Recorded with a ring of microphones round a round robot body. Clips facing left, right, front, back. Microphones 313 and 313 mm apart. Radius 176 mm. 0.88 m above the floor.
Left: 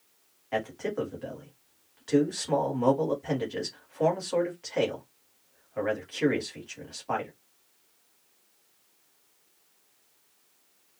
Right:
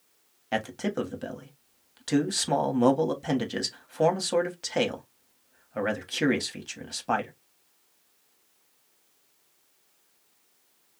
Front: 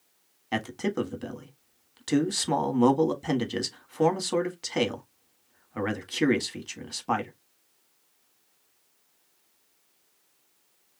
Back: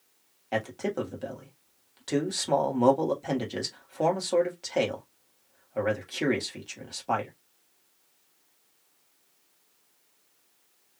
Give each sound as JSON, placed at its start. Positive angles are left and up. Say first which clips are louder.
{"t": 0.5, "sound": "a man speaking", "louder": "right 1 dB, front 1 dB", "azimuth_deg": -60, "distance_m": 1.6}